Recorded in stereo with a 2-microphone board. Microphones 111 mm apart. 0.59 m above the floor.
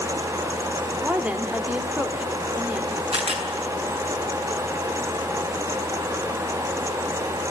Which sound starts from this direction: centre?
A woman speaking, at 1.0 s.